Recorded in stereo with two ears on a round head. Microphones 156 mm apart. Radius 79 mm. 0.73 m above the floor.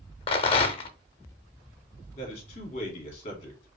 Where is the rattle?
30° left (ahead or behind), 0.6 m.